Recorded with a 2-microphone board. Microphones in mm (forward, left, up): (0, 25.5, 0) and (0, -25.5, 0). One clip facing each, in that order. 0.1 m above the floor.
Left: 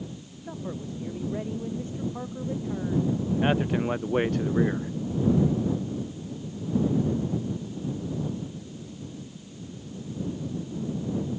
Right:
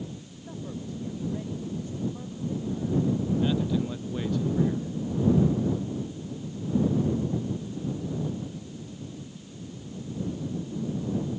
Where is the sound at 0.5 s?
25° left (ahead or behind); by 3.1 s 50° left (ahead or behind).